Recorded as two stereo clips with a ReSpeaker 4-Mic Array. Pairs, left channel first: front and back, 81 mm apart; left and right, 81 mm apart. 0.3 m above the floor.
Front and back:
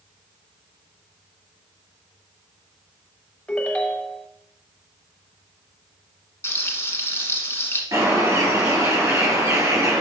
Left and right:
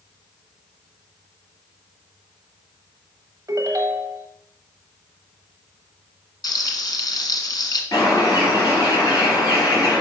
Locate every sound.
3.5 s a ringtone: 70° right, 0.9 m
6.4 s frying: 60° left, 1.5 m
7.9 s a bird: 125° left, 5 m